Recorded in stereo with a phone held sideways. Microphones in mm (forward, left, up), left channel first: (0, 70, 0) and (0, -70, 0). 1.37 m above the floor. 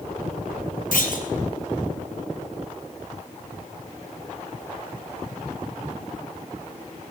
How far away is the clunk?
About 3.5 m.